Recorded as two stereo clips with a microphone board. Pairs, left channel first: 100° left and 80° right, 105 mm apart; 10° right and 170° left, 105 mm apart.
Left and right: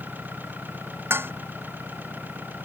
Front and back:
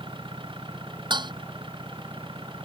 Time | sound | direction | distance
0.0 | an engine running | 150° right | ?
1.1 | dishes clattering | 145° right | ?